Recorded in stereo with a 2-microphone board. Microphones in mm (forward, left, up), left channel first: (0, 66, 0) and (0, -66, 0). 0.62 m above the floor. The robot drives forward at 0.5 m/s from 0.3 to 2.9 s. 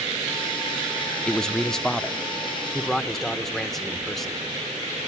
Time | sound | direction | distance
1.3 | a man speaking | 5° left (ahead or behind) | 0.6 m